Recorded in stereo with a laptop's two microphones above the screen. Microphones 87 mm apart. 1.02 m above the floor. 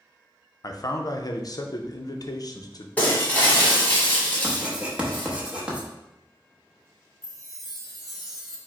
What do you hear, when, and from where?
0.6 s a man speaking: 50° left (ahead or behind), 0.5 m
3.0 s breaking glass: 20° left (ahead or behind), 1.2 m
4.4 s writing: 15° right (ahead or behind), 0.8 m
7.2 s a chime: 5° right (ahead or behind), 1.1 m